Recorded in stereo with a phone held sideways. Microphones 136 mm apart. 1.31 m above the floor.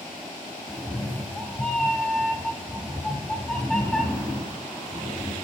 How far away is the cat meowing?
About 1.4 m.